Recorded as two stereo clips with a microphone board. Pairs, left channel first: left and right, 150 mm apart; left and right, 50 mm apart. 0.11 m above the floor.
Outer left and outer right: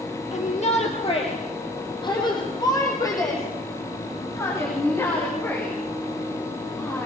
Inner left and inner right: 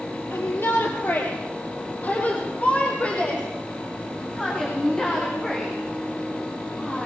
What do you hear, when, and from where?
0.3 s a shout: 50° left (ahead or behind), 3.5 m; by 7.1 s 15° left (ahead or behind), 11.5 m